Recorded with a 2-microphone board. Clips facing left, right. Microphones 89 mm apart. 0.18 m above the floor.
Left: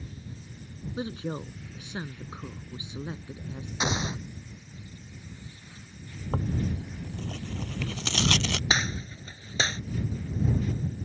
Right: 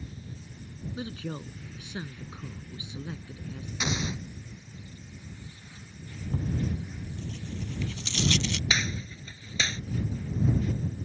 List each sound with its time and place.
1.0 s a woman speaking: 30° left (ahead or behind)
3.8 s an explosion: 35° left (ahead or behind)
6.3 s tearing paper: 65° left (ahead or behind)
8.7 s a gunshot: 35° left (ahead or behind)